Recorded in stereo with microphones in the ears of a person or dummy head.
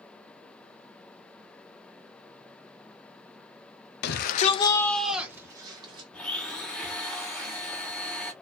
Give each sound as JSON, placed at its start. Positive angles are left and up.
{"t": 4.0, "sound": "a shout", "side_deg": 60, "distance_m": 0.6}
{"t": 6.1, "sound": "a blender", "side_deg": 5, "distance_m": 0.7}